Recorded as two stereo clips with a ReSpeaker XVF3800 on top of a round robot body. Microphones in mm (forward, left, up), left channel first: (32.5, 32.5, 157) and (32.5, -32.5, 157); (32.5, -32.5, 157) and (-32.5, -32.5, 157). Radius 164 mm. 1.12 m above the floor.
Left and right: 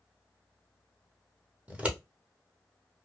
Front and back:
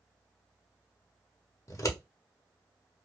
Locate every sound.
1.7 s scissors: 25° right, 1.2 m